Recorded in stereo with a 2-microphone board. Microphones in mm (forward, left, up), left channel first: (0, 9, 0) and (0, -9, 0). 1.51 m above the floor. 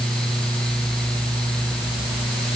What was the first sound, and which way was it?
Only background noise.